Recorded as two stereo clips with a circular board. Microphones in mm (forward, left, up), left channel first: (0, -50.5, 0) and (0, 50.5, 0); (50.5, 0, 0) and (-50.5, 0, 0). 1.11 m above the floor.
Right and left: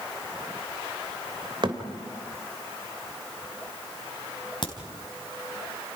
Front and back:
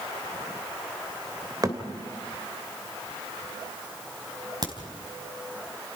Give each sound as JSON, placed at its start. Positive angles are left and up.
{"t": 1.6, "sound": "a thud", "azimuth_deg": 125, "distance_m": 2.5}
{"t": 4.6, "sound": "a crack", "azimuth_deg": -135, "distance_m": 4.0}